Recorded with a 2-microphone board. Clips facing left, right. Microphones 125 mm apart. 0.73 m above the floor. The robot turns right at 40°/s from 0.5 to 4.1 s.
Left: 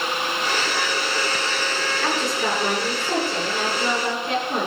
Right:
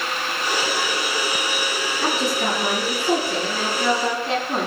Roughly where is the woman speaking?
Behind right.